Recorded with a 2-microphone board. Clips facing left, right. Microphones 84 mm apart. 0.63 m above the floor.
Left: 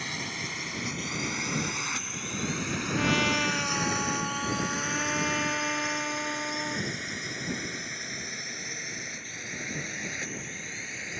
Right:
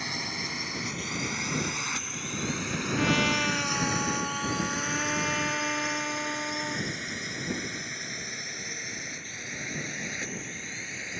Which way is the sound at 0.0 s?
10° right (ahead or behind).